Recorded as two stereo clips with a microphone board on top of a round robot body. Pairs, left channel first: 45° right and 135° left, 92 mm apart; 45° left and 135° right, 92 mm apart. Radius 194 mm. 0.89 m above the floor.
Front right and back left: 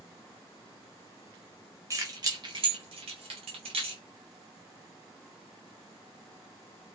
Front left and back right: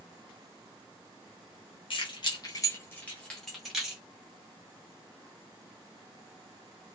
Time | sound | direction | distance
1.9 | keys jangling | 75° left | 0.8 m